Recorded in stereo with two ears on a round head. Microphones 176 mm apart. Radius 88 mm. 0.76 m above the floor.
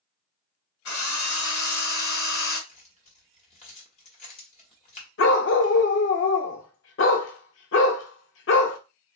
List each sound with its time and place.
0.8 s a drill: 65° left (ahead or behind), 1.4 m
2.7 s keys jangling: 35° left (ahead or behind), 1.2 m
5.2 s a dog barking: 70° left (ahead or behind), 0.6 m